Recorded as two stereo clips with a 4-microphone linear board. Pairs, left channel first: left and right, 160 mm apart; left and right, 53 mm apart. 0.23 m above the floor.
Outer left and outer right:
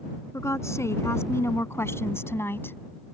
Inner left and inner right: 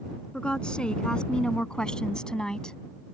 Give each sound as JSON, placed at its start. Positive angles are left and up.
{"t": 0.3, "sound": "a woman speaking", "side_deg": 15}